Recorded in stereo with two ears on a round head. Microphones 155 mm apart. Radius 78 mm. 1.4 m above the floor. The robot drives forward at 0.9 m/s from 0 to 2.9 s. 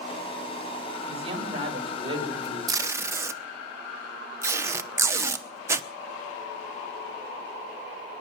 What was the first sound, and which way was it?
A man speaking, 35° right (ahead or behind).